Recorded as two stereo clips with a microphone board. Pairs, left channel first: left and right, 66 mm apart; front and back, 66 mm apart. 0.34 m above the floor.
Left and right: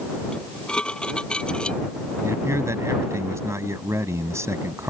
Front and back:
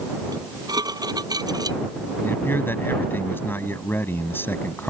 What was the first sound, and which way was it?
Dishes clattering, 165° left.